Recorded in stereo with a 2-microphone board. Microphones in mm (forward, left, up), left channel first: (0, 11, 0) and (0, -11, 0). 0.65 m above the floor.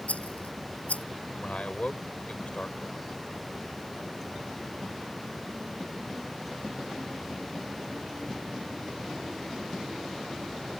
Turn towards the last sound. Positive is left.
turn(degrees=65)  # may be behind; listen again after turning